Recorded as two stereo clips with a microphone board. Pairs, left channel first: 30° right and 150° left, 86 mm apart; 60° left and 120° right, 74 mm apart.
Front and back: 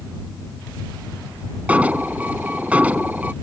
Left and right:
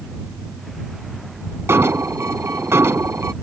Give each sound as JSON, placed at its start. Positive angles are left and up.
{"t": 1.7, "sound": "an alarm", "azimuth_deg": -145}